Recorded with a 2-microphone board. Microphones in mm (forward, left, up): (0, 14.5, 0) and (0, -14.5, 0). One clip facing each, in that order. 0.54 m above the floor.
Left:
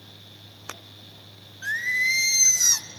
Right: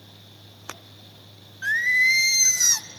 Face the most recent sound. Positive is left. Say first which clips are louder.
# right 4 dB
turn(degrees=-15)  # may be behind; listen again after turning